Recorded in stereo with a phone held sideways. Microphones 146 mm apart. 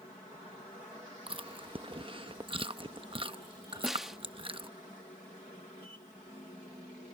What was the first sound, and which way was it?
Chewing, 40° right (ahead or behind).